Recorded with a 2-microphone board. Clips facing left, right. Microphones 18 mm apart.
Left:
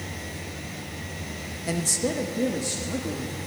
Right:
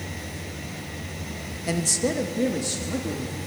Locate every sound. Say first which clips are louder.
1.7 s a man speaking: right 2 dB; 10° right (ahead or behind), 0.7 m